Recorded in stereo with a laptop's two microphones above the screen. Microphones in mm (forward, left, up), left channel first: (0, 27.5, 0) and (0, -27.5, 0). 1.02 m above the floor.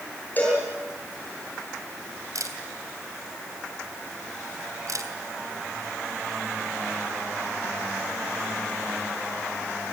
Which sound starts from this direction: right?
A camera shutter, at 2.4 s.